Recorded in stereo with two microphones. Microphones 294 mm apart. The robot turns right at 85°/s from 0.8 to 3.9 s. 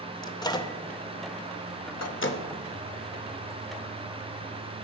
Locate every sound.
0.2 s a microwave: 15° left (ahead or behind), 0.7 m; by 2.4 s 25° left (ahead or behind), 0.7 m